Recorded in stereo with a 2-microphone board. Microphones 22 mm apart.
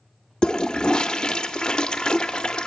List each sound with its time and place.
0.4 s a toilet flushing: 40° left (ahead or behind), 0.7 m